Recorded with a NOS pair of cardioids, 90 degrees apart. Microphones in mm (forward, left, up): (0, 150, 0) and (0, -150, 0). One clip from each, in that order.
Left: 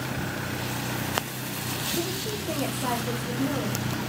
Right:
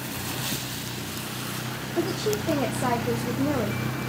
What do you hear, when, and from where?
2.0 s a woman speaking: 40° right, 1.2 m